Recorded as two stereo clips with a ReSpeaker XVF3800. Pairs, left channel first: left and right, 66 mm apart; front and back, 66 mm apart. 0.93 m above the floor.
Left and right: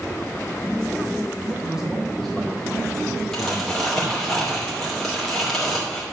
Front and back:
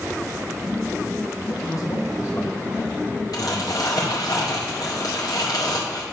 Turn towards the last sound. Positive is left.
turn(degrees=5)